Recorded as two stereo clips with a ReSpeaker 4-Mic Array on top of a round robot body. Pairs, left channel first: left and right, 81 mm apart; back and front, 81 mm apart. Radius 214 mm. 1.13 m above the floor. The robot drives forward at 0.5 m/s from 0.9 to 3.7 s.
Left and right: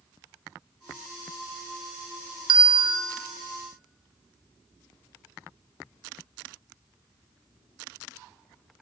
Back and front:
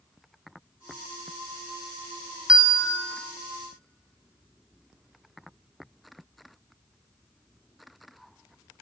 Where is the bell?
80° right, 0.8 m; by 3.0 s 100° right, 0.8 m.